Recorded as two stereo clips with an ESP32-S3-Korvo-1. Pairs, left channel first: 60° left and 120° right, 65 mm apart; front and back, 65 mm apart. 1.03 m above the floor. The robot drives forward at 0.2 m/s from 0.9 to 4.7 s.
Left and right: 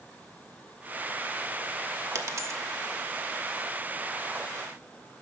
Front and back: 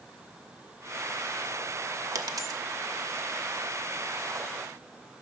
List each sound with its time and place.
2.1 s a dropped coin: 155° right, 0.9 m; by 2.6 s 160° right, 0.9 m